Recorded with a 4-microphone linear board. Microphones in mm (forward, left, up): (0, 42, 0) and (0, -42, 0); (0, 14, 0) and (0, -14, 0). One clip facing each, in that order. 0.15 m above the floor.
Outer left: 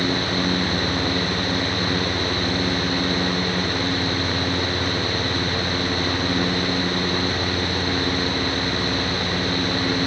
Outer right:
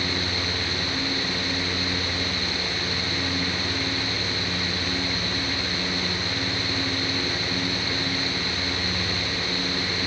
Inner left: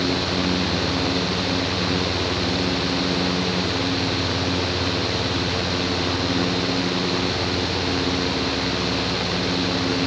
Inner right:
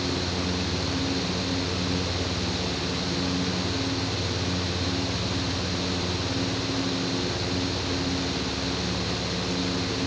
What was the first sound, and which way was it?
Only background noise.